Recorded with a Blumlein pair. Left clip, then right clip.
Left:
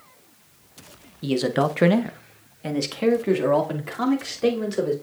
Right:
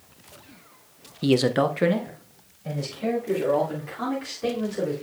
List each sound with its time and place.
1.2 s a man speaking: 20° right, 0.8 m; by 4.9 s 70° left, 3.5 m